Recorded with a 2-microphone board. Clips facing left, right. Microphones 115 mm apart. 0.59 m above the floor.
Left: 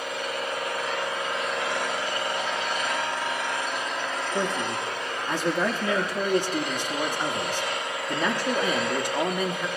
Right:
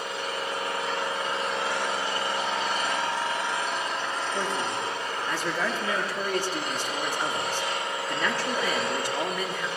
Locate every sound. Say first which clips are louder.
0.0 s an engine running: left 1 dB; 35° right (ahead or behind), 6 m
4.3 s a man speaking: left 3 dB; 20° left (ahead or behind), 0.9 m